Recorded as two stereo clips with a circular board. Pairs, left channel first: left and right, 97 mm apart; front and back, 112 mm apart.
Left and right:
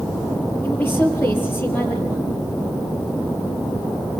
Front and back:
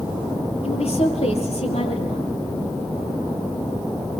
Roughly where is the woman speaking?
Ahead.